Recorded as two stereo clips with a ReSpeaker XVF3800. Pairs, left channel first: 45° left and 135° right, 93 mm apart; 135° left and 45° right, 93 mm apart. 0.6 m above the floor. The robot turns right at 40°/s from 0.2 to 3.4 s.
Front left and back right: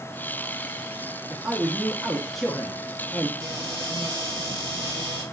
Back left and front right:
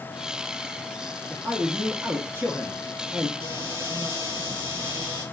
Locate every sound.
1.3 s a man speaking: 85° right, 0.7 m; by 3.3 s 5° right, 0.7 m
3.4 s a cupboard door: 30° right, 2.5 m